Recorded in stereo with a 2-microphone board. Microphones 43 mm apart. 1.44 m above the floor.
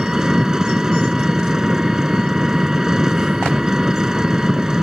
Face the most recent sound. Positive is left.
turn(degrees=-15)  # may be behind; listen again after turning